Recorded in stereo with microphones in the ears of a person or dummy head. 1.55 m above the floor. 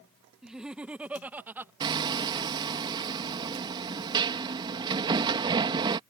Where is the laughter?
5° right (ahead or behind); by 1.7 s 15° right (ahead or behind).